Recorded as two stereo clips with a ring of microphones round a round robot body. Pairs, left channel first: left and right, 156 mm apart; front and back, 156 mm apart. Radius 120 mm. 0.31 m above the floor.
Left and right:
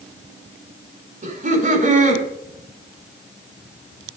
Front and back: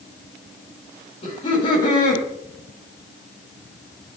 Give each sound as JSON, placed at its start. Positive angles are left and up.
{"t": 1.2, "sound": "laughter", "azimuth_deg": -60, "distance_m": 5.0}